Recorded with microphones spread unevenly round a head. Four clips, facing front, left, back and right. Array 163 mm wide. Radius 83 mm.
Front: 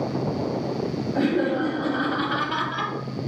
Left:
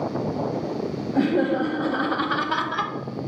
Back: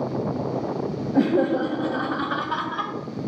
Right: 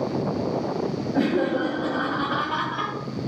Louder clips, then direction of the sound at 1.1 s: Left 2 dB, back 3 dB; straight behind.